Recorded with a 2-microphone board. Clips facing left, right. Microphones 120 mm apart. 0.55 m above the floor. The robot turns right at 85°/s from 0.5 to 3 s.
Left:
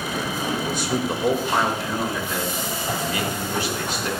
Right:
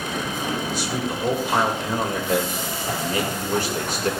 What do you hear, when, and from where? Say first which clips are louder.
0.7 s a man speaking: left 2 dB; 110° left, 2 m; by 4.1 s 50° right, 2 m